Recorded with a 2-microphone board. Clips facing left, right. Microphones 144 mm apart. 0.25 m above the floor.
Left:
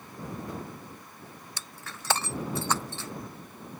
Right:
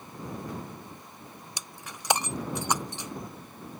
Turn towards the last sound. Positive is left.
turn(degrees=-15)  # may be behind; listen again after turning